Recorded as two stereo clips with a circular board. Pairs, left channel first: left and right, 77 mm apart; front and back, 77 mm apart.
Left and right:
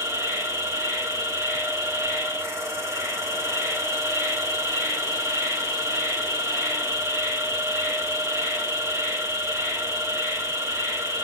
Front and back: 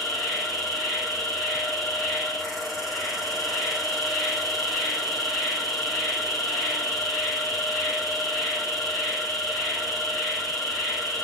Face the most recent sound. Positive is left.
turn(degrees=-90)